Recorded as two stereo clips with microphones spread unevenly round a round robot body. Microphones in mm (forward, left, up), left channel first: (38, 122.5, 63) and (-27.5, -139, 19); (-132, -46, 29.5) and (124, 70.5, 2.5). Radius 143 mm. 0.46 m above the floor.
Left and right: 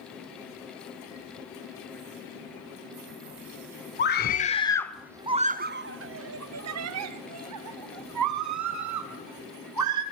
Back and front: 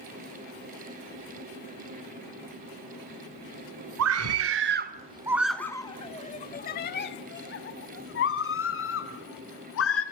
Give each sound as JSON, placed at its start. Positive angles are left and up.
{"t": 4.0, "sound": "a scream", "azimuth_deg": 25, "distance_m": 1.6}